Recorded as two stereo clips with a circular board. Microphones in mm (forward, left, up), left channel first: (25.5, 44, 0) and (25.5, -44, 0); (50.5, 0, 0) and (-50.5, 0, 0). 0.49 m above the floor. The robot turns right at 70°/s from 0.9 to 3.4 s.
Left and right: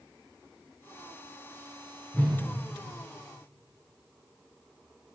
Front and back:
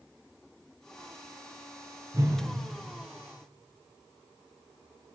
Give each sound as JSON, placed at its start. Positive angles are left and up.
{"t": 2.1, "sound": "a whoosh", "azimuth_deg": 145, "distance_m": 1.4}